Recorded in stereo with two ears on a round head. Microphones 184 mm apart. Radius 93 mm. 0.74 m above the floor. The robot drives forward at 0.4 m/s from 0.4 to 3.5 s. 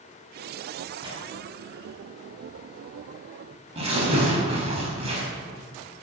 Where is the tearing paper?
25° right (ahead or behind), 5.5 m; by 5.2 s 30° right (ahead or behind), 4.5 m.